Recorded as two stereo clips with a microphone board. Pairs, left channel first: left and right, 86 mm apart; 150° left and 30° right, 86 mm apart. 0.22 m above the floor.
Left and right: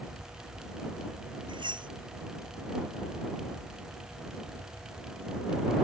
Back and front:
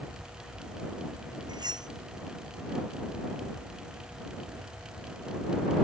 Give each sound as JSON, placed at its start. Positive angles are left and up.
{"t": 1.5, "sound": "cutlery clinking", "azimuth_deg": -65}